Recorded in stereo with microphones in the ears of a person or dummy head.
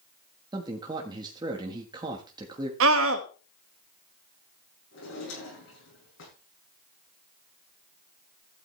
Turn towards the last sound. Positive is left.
turn(degrees=70)  # may be behind; listen again after turning